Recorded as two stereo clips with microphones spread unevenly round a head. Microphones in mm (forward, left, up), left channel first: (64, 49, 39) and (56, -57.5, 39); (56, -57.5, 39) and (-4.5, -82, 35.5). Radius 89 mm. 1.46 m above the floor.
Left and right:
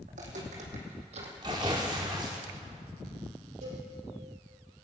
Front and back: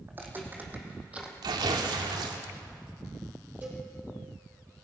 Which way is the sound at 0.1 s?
100° right.